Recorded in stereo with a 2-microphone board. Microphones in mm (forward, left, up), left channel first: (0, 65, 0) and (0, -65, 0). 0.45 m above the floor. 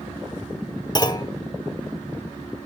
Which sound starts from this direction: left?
A clunk, at 0.9 s.